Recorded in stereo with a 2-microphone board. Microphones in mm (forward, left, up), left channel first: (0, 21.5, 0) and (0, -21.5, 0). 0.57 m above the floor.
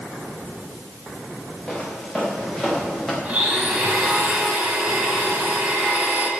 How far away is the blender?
About 3 m.